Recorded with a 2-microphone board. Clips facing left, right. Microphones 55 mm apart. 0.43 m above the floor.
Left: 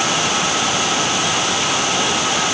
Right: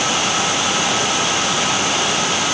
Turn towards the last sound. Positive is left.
No sound to turn to.